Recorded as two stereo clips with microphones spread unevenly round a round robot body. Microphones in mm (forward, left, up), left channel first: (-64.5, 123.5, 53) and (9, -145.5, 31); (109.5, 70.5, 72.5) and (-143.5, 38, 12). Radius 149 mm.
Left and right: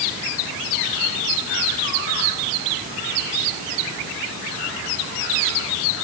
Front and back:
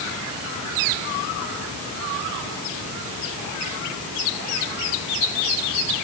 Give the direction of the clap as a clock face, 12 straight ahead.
No clap in this recording.